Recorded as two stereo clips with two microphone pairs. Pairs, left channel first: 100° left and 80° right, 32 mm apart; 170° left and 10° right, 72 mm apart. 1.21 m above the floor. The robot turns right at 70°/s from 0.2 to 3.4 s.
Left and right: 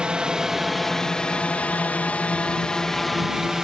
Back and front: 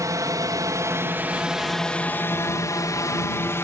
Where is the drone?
30° right; by 3.6 s 150° right.